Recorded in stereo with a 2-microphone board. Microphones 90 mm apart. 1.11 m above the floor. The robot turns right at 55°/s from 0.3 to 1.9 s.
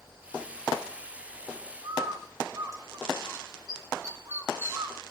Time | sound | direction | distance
1.8 | a bird | 35° right (ahead or behind) | 4.5 m